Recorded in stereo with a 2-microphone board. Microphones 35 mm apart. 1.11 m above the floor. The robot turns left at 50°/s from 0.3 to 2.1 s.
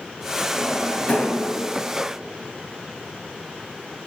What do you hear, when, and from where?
0.5 s a drawer: 15° left (ahead or behind), 2.5 m; by 1.4 s 55° left (ahead or behind), 2.5 m